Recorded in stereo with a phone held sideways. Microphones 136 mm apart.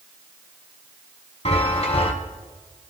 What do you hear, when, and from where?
1.4 s a chime: 50° left (ahead or behind), 1.6 m